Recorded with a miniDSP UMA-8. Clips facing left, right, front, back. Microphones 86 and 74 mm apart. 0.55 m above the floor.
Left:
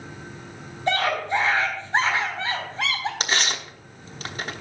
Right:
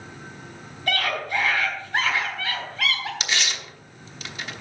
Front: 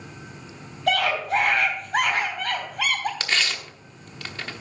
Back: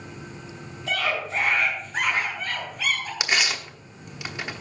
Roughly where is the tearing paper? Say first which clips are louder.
Left 3 dB, back 1 dB; left.